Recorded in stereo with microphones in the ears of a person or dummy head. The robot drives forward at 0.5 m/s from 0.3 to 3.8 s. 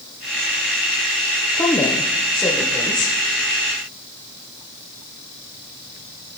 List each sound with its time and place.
1.5 s a woman speaking: 15° left (ahead or behind), 0.7 m; by 3.1 s 5° left (ahead or behind), 1.4 m